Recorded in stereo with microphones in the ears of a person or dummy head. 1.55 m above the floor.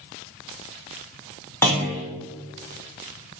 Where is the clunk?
10° left (ahead or behind), 0.8 m.